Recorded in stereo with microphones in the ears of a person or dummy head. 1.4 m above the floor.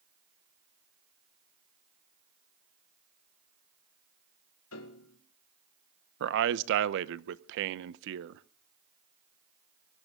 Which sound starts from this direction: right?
A man speaking, at 6.2 s.